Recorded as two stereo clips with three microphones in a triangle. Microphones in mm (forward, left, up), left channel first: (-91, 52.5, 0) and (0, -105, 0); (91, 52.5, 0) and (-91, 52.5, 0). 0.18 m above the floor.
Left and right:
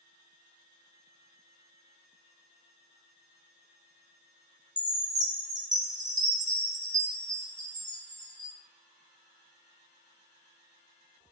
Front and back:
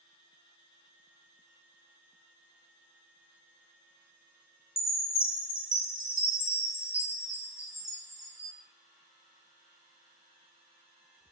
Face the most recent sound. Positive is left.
turn(degrees=-65)